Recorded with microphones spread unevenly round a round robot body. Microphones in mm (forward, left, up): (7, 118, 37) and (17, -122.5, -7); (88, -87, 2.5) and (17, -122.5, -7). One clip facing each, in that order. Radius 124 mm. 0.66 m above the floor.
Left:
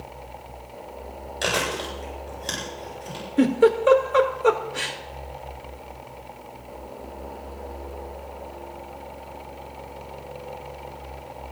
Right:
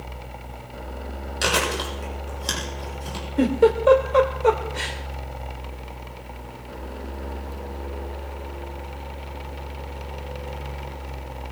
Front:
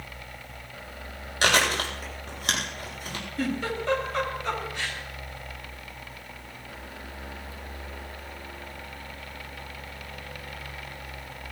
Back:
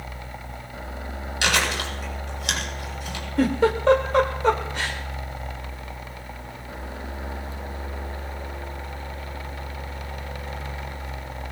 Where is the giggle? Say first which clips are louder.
Even, back 9 dB; 170° left, 1.9 m.